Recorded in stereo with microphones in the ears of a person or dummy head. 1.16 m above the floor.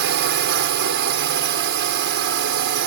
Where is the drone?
65° right (ahead or behind).